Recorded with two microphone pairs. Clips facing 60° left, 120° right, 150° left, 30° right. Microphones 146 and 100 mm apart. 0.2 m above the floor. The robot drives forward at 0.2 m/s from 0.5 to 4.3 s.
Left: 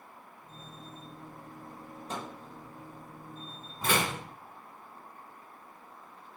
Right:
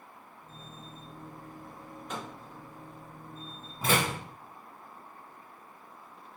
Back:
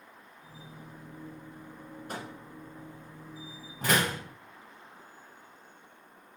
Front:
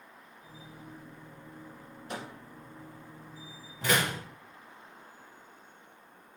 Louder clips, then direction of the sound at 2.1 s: Left 1 dB, even; 110° left.